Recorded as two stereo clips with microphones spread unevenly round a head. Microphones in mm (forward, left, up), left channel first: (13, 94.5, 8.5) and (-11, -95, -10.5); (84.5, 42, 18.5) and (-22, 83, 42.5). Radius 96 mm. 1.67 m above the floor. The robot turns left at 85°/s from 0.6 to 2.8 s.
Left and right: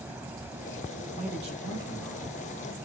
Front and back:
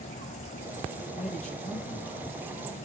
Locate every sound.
1.1 s a man speaking: 30° right, 2 m; by 2.4 s 145° right, 2 m